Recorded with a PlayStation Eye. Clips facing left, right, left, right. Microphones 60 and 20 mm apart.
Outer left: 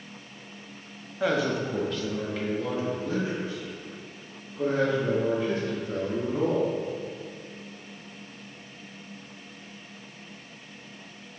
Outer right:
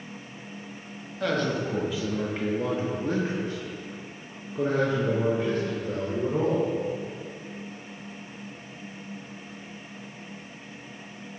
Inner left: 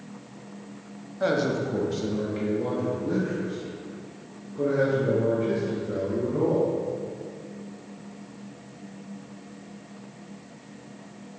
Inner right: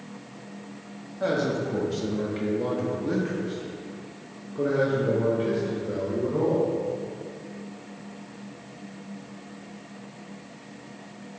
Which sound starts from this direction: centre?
A man speaking, at 1.2 s.